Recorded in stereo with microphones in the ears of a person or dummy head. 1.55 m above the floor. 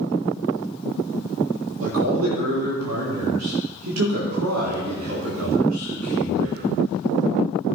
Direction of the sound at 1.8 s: 70° right (ahead or behind).